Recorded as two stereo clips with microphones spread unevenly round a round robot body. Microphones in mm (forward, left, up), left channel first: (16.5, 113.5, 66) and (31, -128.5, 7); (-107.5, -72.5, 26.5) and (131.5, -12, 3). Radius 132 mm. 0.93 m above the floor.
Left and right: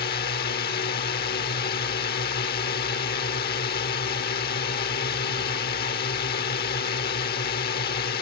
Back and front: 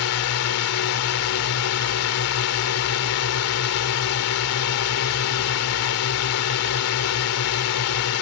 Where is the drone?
155° left.